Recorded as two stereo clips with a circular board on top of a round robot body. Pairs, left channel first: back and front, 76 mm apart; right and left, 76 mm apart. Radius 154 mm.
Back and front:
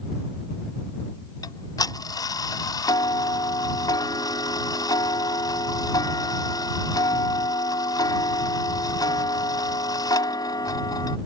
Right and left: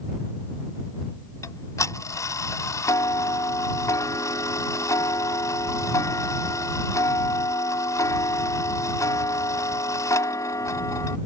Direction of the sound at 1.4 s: 140° right.